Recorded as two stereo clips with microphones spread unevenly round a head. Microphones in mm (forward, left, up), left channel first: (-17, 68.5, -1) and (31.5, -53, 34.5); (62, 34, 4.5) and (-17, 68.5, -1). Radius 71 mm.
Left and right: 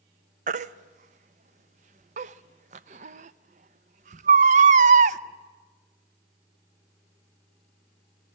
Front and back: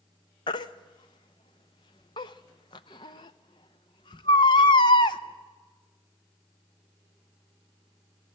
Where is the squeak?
I don't hear a squeak.